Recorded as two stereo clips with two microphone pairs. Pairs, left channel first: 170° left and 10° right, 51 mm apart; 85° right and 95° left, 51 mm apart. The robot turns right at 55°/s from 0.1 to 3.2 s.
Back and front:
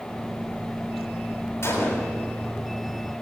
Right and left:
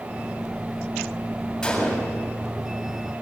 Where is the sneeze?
I don't hear a sneeze.